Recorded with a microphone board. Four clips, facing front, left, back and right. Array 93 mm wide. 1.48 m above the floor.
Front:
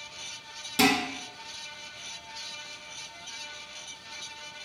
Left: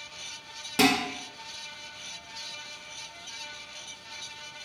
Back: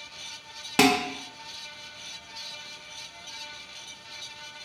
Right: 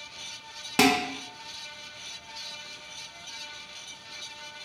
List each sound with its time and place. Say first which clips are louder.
0.8 s dishes clattering: right 1 dB, back 3 dB; 155° right, 0.8 m